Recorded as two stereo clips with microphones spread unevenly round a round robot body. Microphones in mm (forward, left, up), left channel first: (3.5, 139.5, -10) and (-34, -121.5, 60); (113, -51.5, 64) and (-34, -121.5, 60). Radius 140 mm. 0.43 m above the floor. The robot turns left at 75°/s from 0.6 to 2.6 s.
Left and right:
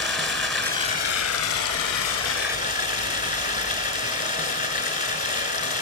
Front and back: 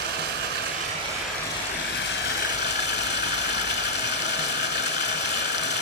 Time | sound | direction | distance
0.0 | running water | 170° left | 3 m